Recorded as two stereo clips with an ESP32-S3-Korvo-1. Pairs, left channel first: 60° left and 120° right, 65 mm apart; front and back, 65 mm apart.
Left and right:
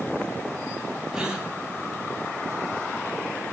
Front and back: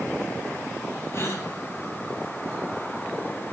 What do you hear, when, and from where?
1.1 s a gasp: 45° right, 2.5 m